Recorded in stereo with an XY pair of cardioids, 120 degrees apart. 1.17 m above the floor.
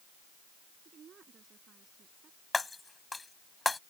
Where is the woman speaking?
45° right.